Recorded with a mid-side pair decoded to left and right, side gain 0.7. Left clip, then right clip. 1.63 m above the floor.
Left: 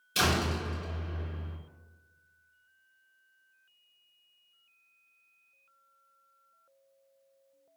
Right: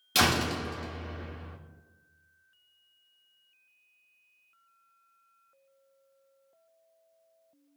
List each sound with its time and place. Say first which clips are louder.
0.1 s a door slam: right 3 dB; 60° right, 2.5 m